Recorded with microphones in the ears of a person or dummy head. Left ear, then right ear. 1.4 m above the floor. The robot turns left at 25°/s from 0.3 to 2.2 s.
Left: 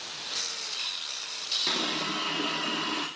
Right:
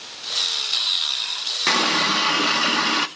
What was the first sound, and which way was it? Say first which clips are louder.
A running tap: right 10 dB; 60° right (ahead or behind).